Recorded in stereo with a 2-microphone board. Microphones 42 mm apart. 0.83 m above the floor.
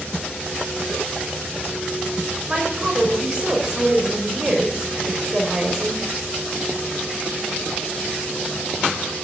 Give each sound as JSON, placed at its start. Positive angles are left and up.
{"t": 2.5, "sound": "a woman speaking", "side_deg": -20, "distance_m": 4.5}